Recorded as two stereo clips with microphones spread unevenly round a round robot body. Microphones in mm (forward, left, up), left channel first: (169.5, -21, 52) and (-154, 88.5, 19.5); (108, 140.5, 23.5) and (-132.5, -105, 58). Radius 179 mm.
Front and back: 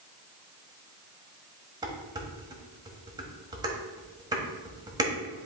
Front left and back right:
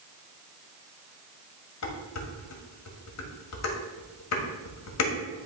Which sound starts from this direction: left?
Dishes clattering, at 1.8 s.